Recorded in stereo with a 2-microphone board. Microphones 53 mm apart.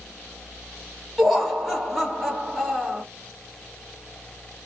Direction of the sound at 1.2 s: Centre (ahead or behind).